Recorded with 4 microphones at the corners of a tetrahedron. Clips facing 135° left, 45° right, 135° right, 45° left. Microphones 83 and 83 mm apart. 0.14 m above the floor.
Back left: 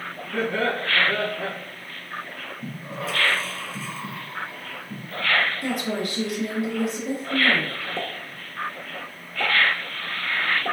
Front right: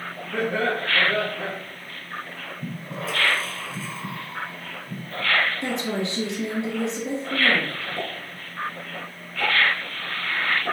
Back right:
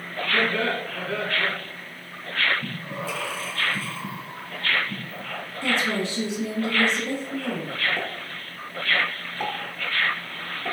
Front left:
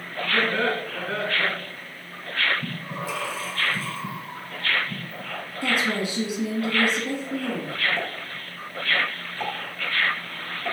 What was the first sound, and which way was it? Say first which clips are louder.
Laughter: even, front left 1 dB; straight ahead.